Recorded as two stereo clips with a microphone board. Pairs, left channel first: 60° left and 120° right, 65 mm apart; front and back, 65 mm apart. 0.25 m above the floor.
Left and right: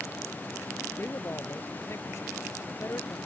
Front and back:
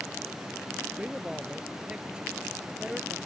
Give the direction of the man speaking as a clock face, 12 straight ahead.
9 o'clock.